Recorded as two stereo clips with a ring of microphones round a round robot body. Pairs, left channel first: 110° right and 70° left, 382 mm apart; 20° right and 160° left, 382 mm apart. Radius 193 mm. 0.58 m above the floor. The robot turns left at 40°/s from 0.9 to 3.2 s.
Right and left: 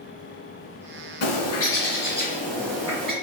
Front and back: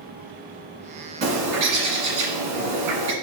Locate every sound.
1.2 s a bird: 140° right, 2.0 m; by 3.1 s 140° left, 2.0 m